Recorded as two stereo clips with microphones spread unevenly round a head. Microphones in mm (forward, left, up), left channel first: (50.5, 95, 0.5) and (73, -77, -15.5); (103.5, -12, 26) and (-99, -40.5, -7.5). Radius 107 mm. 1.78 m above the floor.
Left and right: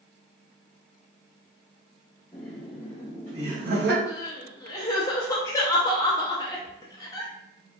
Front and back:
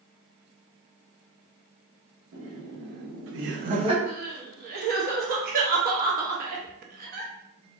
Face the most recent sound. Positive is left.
turn(degrees=150)